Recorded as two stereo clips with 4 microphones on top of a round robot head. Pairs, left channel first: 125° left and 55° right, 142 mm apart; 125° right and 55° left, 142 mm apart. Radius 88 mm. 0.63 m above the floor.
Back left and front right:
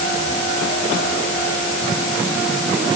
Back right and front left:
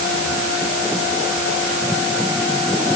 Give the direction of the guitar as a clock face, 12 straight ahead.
No guitar in this recording.